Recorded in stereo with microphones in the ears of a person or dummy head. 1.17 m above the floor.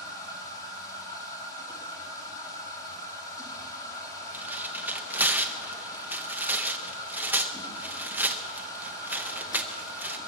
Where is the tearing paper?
5° right (ahead or behind), 0.7 m.